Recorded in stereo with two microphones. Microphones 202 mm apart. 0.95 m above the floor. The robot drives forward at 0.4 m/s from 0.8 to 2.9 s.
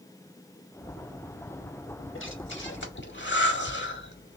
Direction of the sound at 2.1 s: 75° left (ahead or behind).